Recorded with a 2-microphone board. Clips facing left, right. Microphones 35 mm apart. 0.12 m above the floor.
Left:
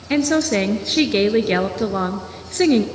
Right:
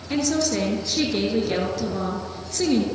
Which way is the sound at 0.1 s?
45° left (ahead or behind).